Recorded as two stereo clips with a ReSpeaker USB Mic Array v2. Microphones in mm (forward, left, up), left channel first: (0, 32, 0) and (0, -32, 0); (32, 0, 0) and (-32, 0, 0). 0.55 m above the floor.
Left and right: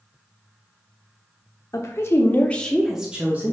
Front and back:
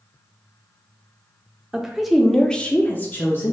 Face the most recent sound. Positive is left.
turn(degrees=-45)